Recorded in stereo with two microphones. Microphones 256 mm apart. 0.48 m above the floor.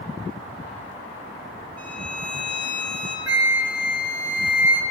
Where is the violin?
85° right, 2.5 m.